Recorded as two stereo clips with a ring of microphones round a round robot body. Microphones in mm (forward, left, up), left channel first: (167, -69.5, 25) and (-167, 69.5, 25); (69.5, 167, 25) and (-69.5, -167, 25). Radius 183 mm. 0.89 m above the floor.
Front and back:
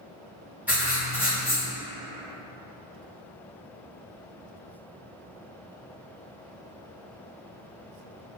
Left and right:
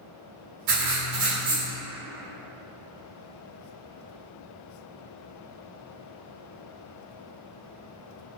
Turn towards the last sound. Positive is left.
turn(degrees=-115)